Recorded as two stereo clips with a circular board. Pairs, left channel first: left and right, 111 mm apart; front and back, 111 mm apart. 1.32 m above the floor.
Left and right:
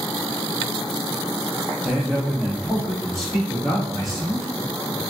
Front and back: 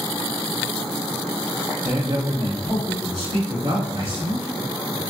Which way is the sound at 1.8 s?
175° right.